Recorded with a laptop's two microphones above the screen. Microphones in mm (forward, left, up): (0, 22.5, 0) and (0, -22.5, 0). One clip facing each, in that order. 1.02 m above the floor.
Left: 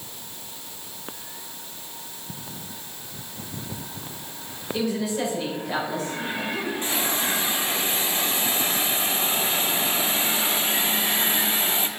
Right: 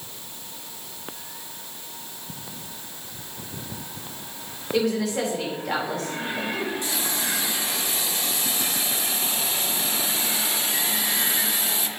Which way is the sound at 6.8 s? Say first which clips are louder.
Left 2 dB; 35° left (ahead or behind).